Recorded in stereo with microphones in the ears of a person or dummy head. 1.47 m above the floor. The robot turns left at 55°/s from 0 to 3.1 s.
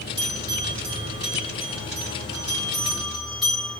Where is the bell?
30° right (ahead or behind), 2.0 m; by 3.8 s 10° left (ahead or behind), 2.0 m.